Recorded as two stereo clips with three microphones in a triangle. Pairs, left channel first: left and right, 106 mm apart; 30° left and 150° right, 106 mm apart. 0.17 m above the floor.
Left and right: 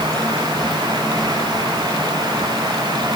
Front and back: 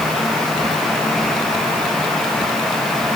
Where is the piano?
No piano in this recording.